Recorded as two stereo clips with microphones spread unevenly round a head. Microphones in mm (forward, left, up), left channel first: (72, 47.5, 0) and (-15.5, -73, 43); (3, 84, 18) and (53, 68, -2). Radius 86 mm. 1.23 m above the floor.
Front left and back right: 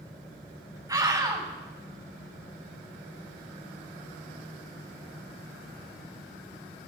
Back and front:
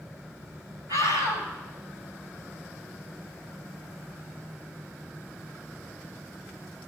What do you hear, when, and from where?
0.9 s a scream: 60° right, 6 m